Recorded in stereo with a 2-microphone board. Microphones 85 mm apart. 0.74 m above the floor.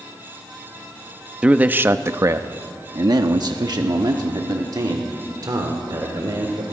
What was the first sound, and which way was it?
A man speaking, 10° right (ahead or behind).